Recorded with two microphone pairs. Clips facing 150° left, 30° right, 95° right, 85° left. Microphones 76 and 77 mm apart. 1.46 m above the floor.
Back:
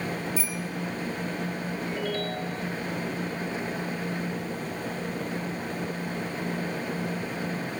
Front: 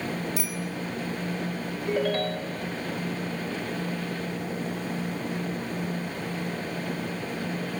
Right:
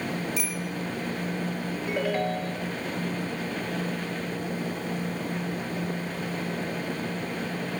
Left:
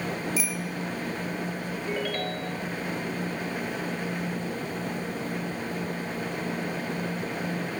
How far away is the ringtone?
About 4 m.